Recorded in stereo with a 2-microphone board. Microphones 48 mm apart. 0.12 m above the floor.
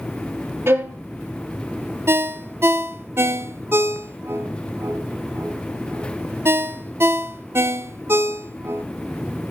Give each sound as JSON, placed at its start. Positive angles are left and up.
{"t": 0.7, "sound": "a violin", "side_deg": -60, "distance_m": 3.5}
{"t": 2.1, "sound": "a ringtone", "side_deg": -60, "distance_m": 1.0}